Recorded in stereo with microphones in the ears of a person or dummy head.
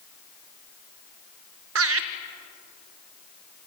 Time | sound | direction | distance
1.8 | laughter | 85° right | 1.3 m